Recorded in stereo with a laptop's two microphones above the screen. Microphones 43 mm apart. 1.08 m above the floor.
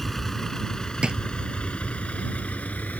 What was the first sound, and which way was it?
A vehicle, 5° left (ahead or behind).